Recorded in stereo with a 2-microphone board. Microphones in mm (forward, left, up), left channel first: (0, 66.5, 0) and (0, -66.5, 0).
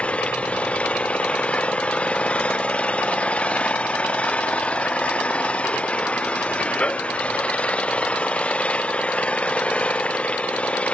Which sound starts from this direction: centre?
An engine running, at 0.0 s.